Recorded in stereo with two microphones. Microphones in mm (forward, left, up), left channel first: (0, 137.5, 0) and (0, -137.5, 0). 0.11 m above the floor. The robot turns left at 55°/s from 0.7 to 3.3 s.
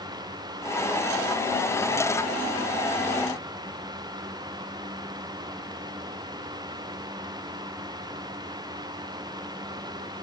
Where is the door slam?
I don't hear a door slam.